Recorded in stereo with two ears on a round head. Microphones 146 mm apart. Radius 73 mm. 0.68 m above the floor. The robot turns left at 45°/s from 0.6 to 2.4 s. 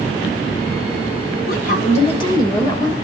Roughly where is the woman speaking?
Ahead left.